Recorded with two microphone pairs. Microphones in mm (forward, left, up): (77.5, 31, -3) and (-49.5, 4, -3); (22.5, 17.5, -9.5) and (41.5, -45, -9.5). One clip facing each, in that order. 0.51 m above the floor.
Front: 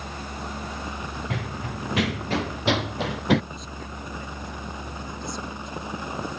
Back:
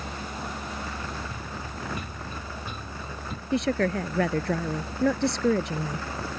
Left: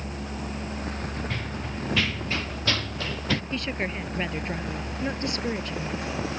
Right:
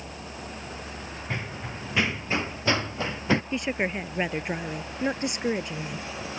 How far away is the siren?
No siren in this recording.